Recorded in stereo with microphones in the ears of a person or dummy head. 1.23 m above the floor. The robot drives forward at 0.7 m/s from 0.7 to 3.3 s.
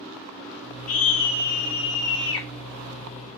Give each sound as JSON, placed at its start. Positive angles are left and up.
{"t": 0.9, "sound": "a scream", "side_deg": 55, "distance_m": 1.3}